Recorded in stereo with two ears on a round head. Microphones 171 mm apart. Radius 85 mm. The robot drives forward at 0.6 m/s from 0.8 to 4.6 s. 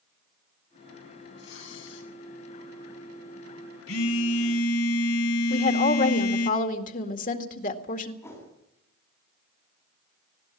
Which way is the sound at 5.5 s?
45° left (ahead or behind).